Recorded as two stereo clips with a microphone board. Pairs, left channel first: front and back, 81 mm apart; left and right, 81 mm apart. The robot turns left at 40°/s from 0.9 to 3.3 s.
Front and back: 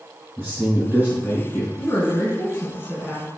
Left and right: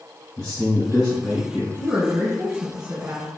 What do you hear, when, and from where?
0.4 s a man speaking: 155° left, 1.7 m; by 1.7 s 120° left, 1.7 m
1.8 s a woman speaking: 15° right, 1.3 m; by 3.3 s 75° right, 1.3 m